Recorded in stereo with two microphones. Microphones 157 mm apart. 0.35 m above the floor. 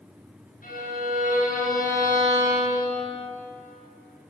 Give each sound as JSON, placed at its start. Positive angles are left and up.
{"t": 0.6, "sound": "a violin", "side_deg": 70, "distance_m": 5.0}